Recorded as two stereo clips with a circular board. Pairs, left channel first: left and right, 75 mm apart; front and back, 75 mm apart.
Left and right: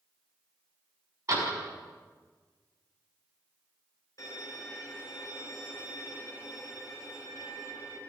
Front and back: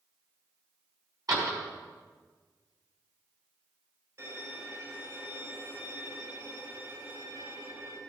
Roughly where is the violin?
Behind left.